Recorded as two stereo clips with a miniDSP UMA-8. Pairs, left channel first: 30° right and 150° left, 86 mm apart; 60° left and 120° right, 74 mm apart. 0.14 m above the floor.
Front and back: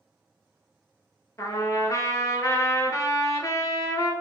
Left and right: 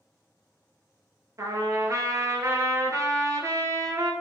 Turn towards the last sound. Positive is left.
turn(degrees=-80)